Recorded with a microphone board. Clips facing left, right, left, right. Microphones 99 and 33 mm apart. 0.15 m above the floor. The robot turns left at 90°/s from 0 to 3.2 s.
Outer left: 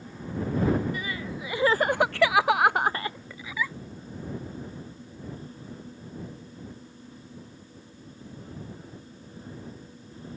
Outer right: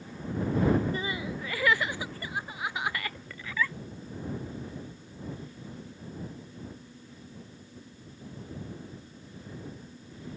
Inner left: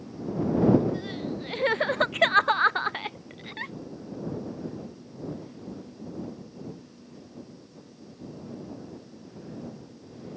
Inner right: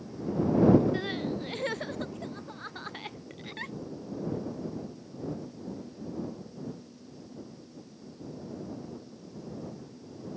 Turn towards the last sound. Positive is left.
turn(degrees=10)  # may be behind; listen again after turning